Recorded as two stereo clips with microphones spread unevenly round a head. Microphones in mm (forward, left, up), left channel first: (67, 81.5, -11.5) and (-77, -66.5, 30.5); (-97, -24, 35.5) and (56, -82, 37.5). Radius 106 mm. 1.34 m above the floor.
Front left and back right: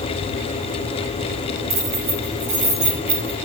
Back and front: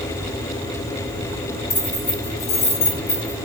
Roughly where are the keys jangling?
Behind.